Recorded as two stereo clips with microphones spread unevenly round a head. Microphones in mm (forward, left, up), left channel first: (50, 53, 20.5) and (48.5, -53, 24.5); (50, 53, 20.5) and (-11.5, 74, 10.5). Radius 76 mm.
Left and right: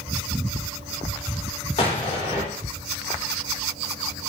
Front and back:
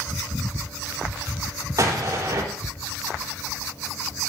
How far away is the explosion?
About 3.5 m.